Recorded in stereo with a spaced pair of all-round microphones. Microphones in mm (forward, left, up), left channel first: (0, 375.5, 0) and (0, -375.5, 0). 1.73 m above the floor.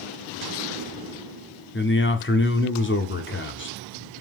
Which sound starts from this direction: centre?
A man speaking, at 1.7 s.